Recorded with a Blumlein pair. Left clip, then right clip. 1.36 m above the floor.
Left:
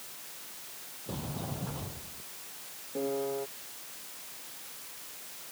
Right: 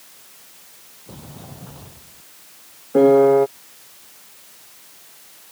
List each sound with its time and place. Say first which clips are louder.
1.1 s a sliding door: left 2 dB; 5° left
2.9 s a piano: right 21 dB; 40° right